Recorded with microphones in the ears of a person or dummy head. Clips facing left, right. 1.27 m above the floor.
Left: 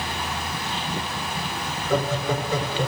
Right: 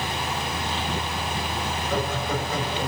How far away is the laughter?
About 8 m.